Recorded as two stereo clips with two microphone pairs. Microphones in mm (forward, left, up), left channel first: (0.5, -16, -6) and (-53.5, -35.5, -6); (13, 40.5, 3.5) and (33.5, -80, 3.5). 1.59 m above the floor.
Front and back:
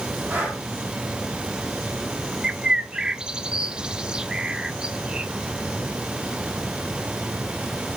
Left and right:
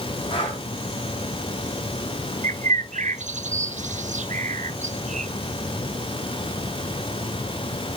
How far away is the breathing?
About 3.5 m.